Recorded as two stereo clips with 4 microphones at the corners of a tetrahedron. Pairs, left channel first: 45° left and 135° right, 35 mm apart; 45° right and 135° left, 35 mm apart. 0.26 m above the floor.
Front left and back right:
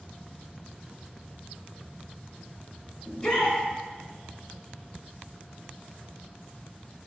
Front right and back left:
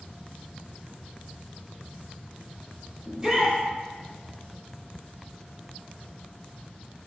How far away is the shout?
About 1.1 m.